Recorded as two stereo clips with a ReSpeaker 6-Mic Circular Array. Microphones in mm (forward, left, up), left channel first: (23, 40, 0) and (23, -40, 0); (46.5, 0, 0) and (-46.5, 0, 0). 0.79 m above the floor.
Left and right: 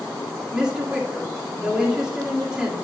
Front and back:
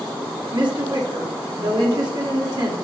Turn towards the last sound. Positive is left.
turn(degrees=-170)